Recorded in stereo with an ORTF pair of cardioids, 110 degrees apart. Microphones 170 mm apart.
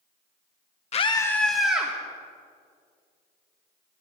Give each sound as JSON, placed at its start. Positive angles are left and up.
{"t": 0.9, "sound": "a scream", "azimuth_deg": 40, "distance_m": 0.9}